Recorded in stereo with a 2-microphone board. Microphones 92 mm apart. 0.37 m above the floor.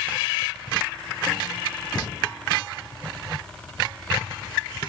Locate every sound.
1.9 s breathing: 45° left (ahead or behind), 3 m